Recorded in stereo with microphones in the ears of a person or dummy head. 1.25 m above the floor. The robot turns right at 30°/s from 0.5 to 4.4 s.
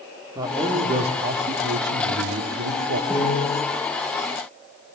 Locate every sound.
0.3 s a man speaking: 160° right, 4 m; by 3.0 s 85° right, 4 m
3.1 s a piano: 5° left (ahead or behind), 9 m; by 3.6 s 20° left (ahead or behind), 9 m